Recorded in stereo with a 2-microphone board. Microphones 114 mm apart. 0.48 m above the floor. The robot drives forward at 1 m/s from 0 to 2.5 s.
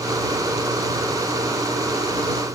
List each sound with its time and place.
Only background noise.